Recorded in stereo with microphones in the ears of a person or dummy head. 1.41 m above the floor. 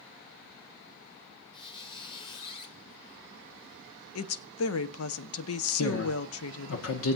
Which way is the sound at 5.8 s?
80° left.